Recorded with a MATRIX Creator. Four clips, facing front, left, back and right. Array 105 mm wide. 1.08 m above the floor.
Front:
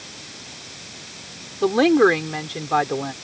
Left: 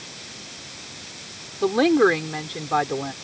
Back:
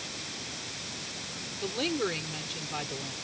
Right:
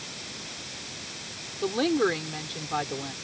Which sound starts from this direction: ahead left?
A woman speaking, at 1.6 s.